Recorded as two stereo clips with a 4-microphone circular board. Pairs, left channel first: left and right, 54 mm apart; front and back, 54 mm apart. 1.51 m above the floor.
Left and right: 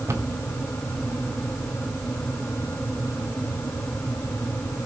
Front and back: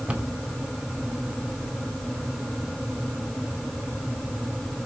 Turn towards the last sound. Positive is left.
turn(degrees=-115)